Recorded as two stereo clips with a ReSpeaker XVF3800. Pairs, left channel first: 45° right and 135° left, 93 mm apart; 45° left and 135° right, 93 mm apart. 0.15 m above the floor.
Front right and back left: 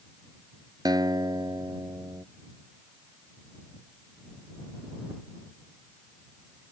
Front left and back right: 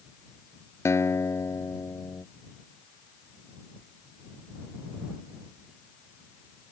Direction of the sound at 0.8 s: 100° left.